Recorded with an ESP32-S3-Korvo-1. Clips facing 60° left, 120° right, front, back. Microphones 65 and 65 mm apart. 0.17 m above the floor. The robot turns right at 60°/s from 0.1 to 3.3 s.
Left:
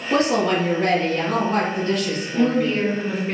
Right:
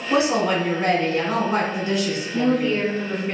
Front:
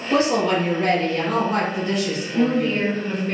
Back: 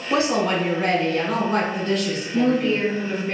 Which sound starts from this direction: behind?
A woman speaking, at 0.1 s.